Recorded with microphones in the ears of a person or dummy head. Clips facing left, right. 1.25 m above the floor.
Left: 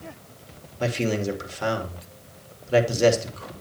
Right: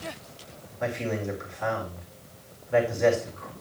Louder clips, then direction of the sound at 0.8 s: Left 5 dB; 50° left (ahead or behind).